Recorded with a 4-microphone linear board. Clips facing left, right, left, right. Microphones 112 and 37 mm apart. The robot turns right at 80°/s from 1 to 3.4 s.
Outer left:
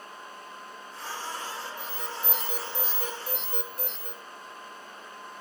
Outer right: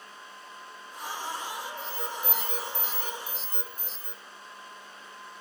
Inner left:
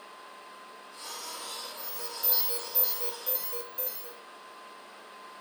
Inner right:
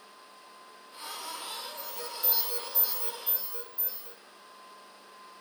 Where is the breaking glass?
No breaking glass in this recording.